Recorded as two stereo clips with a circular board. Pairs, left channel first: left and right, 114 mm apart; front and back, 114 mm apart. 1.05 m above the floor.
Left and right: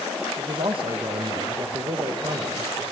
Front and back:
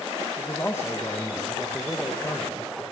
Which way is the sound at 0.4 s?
65° right.